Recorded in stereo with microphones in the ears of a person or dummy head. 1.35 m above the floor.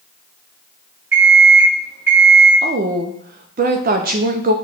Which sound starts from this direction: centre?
An alarm clock, at 1.1 s.